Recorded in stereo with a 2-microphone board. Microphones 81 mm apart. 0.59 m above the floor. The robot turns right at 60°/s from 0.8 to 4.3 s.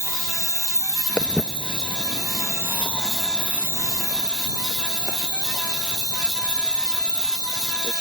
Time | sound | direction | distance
0.0 | an insect | 35° left | ?
1.2 | footsteps | 15° left (ahead or behind) | ?